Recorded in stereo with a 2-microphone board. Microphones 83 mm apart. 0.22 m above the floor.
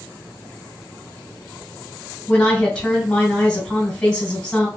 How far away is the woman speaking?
About 2.0 m.